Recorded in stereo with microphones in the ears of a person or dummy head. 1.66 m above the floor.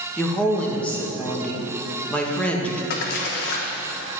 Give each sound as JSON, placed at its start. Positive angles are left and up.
{"t": 0.2, "sound": "a woman speaking", "side_deg": 5, "distance_m": 1.6}
{"t": 2.9, "sound": "a splash", "side_deg": 55, "distance_m": 1.1}